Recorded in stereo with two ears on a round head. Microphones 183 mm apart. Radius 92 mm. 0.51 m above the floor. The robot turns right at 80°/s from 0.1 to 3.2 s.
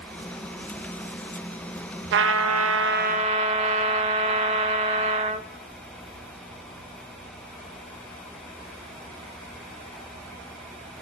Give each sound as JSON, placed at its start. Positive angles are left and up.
{"t": 2.1, "sound": "a trumpet", "azimuth_deg": -120, "distance_m": 0.6}